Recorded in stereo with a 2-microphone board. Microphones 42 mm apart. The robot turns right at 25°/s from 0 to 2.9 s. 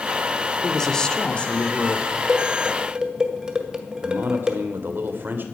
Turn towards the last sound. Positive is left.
turn(degrees=-50)  # may be behind; listen again after turning